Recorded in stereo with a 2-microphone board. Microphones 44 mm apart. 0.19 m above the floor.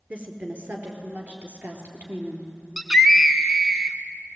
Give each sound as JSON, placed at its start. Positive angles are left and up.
{"t": 0.1, "sound": "a woman speaking", "side_deg": -40, "distance_m": 3.5}
{"t": 2.8, "sound": "a scream", "side_deg": -10, "distance_m": 1.5}